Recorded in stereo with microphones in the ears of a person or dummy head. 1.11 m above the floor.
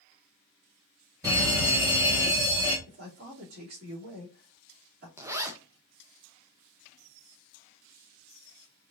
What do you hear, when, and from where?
1.2 s a fire alarm: 15° right (ahead or behind), 2.5 m
2.9 s a man speaking: 45° right (ahead or behind), 2.5 m
5.2 s a zipper: 15° right (ahead or behind), 0.5 m